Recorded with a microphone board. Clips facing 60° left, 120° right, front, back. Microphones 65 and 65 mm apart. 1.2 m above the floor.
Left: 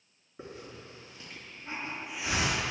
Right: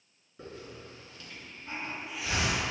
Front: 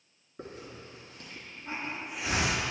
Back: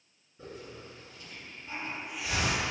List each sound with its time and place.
0.4 s a hiss: straight ahead, 3.5 m